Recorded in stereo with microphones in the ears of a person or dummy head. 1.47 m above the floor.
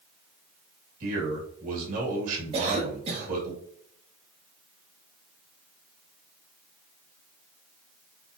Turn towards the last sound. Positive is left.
turn(degrees=-35)  # may be behind; listen again after turning